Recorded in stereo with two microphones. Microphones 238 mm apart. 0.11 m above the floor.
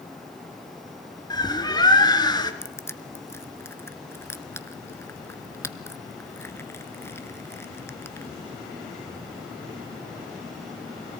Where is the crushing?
10° left (ahead or behind), 0.8 m.